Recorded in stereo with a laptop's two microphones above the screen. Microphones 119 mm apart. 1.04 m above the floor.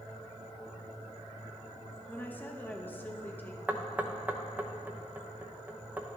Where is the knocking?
15° right (ahead or behind), 0.8 m.